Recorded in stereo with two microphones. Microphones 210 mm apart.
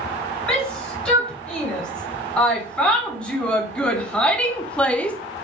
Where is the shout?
5° left (ahead or behind), 5 m.